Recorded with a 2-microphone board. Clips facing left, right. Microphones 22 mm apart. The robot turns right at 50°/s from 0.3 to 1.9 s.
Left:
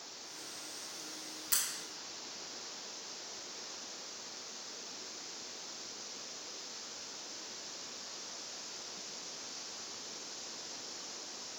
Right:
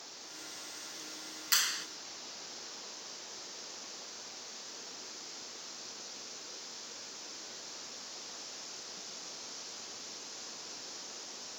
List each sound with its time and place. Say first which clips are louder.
1.5 s a clap: right 7 dB; 40° right (ahead or behind)